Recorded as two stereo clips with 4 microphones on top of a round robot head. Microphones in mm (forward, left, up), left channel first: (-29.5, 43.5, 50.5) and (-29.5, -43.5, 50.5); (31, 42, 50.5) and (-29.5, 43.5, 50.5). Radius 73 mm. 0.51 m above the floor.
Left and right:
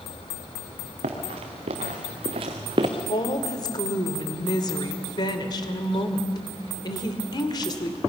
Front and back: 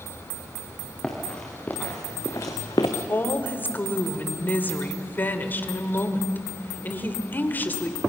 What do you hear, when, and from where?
1.0 s running footsteps: 80° right, 4 m; by 2.9 s 40° right, 1.9 m
3.1 s a woman speaking: 55° left, 2 m